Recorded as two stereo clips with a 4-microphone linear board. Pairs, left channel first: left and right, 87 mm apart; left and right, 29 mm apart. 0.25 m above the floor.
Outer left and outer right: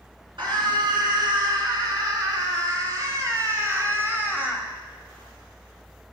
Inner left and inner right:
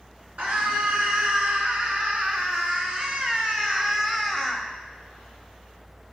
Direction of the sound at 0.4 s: 60° right (ahead or behind).